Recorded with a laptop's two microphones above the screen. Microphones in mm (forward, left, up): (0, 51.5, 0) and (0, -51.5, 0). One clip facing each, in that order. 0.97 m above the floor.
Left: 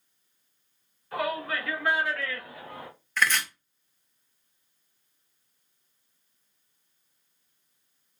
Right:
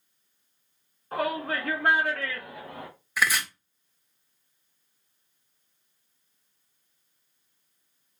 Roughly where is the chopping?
Centre.